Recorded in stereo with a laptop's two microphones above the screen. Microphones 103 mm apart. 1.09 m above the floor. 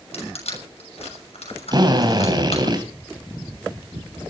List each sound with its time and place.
0.1 s crushing: 85° left, 6.5 m
1.7 s a drill: 45° right (ahead or behind), 3 m